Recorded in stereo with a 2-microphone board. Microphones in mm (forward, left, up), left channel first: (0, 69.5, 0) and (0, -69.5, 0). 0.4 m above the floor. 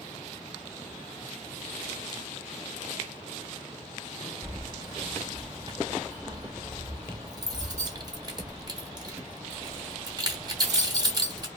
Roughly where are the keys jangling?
Right.